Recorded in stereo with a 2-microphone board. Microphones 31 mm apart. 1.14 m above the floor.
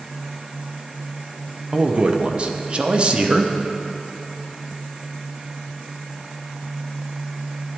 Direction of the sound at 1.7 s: 35° right (ahead or behind).